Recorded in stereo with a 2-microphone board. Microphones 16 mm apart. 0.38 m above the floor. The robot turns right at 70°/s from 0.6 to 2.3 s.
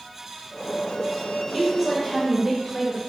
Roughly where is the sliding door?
I don't hear a sliding door.